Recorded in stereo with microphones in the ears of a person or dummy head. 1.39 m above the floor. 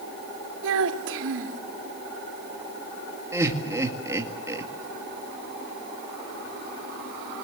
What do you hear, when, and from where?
0.6 s a child speaking: 70° right (ahead or behind), 1.9 m
3.3 s laughter: 15° right (ahead or behind), 2 m